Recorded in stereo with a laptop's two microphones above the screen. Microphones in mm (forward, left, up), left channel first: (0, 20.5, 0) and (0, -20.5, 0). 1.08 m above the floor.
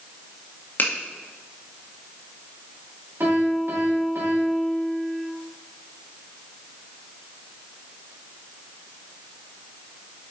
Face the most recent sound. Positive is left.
turn(degrees=-55)  # may be behind; listen again after turning